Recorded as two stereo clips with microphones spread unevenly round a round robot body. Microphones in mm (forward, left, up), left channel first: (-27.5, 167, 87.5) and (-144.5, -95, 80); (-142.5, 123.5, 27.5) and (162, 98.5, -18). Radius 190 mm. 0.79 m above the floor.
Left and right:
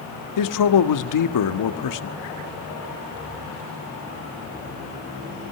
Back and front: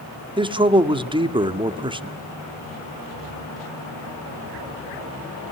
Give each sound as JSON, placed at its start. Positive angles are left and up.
{"t": 0.4, "sound": "a man speaking", "azimuth_deg": 70, "distance_m": 1.4}